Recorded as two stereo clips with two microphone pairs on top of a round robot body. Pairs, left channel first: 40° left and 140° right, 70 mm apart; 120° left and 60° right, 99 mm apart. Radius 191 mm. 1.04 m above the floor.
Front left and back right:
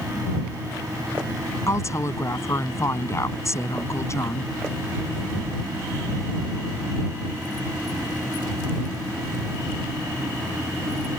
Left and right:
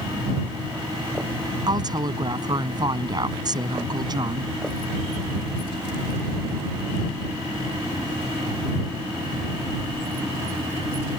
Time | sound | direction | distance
1.7 | a woman speaking | 10° right | ?